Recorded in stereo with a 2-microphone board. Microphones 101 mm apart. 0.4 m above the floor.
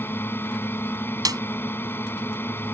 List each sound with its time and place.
0.0 s a drone: 20° left (ahead or behind)
1.2 s a snare drum: 45° right (ahead or behind)